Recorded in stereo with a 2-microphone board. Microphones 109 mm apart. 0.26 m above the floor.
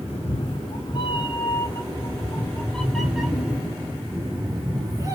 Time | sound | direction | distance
0.1 | a cat meowing | 60° left (ahead or behind) | 1.8 m